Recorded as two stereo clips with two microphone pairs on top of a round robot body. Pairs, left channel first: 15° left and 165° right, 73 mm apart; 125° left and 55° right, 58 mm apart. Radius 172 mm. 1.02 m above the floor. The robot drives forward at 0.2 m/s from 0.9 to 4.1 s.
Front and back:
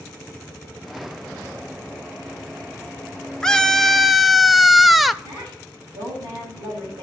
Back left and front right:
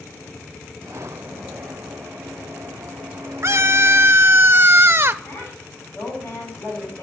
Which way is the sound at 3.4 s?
60° right.